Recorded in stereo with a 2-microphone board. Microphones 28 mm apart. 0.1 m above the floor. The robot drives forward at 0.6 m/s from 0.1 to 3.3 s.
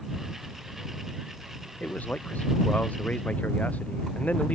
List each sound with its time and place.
1.8 s a man speaking: 65° left (ahead or behind)